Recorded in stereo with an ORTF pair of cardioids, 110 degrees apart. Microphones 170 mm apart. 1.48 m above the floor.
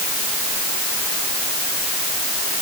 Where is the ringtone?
No ringtone in this recording.